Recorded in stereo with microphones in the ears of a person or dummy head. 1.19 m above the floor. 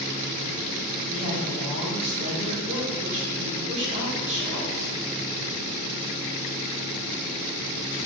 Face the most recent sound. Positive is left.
turn(degrees=-35)  # may be behind; listen again after turning